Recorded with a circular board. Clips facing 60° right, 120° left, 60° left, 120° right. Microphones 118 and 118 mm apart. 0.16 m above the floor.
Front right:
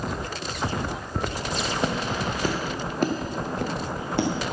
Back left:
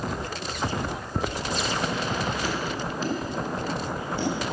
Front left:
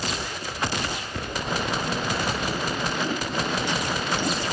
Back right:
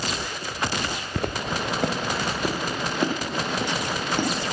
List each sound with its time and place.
1.2 s footsteps: 160° right, 0.7 m; by 4.3 s 80° right, 2.5 m